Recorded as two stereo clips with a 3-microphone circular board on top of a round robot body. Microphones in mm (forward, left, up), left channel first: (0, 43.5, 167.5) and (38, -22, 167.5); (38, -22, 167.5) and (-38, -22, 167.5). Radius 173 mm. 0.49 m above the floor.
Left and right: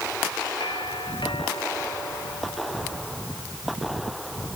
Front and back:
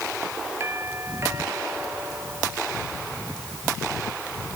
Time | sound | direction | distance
0.6 | a doorbell | 125° left | ?